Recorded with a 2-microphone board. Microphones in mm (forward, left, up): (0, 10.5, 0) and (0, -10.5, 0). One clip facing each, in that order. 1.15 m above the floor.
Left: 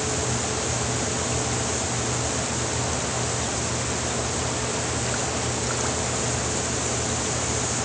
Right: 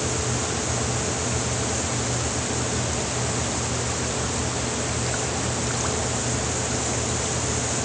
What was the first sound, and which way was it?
Only background noise.